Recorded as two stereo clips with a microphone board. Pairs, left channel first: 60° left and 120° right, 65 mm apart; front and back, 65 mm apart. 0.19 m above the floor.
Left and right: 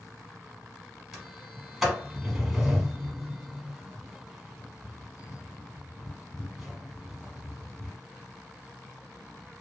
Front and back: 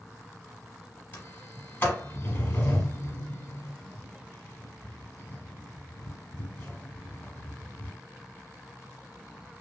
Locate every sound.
1.1 s a sliding door: 35° right, 0.9 m